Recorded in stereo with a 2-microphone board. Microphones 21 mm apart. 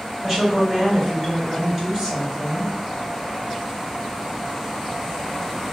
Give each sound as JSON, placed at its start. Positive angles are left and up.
{"t": 0.2, "sound": "a woman speaking", "side_deg": -20, "distance_m": 1.7}